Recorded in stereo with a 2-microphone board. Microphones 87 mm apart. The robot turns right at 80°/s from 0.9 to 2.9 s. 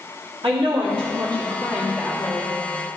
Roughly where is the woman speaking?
Right.